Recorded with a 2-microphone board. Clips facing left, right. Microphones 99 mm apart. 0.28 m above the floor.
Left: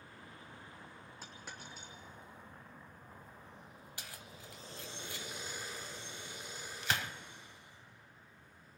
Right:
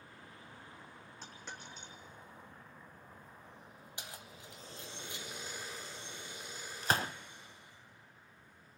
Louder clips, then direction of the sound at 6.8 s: Right 4 dB; 40° right (ahead or behind).